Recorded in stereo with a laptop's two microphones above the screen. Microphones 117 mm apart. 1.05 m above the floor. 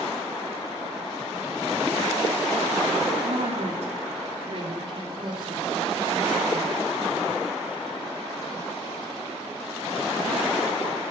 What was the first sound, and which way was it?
A woman speaking, 75° right (ahead or behind).